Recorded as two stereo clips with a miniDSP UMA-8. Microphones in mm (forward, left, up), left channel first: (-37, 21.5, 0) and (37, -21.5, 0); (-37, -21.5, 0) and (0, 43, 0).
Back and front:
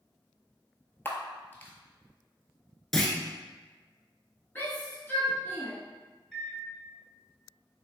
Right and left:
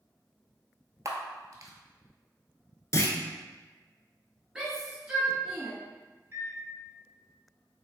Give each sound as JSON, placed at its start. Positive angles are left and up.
{"t": 1.1, "sound": "a camera shutter", "azimuth_deg": 90, "distance_m": 0.7}
{"t": 2.9, "sound": "a clunk", "azimuth_deg": -125, "distance_m": 0.5}
{"t": 4.5, "sound": "a shout", "azimuth_deg": 130, "distance_m": 1.3}
{"t": 6.3, "sound": "a microwave", "azimuth_deg": 60, "distance_m": 1.3}